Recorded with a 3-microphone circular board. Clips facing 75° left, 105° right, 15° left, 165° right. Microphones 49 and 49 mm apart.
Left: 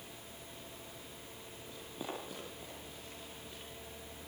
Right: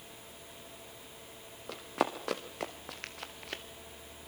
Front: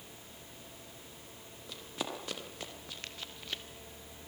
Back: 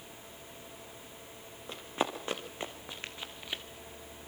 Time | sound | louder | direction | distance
1.7 | running footsteps | right 11 dB, back 6 dB | 110° right | 4 m